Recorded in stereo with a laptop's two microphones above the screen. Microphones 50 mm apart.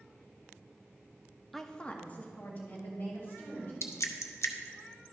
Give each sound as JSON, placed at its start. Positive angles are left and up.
{"t": 1.5, "sound": "a woman speaking", "side_deg": 5, "distance_m": 0.6}
{"t": 3.8, "sound": "dripping", "side_deg": 65, "distance_m": 0.6}